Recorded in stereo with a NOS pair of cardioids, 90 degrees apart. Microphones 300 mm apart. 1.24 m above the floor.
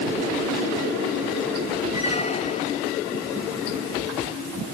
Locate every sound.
1.9 s a squeak: 20° left, 1.3 m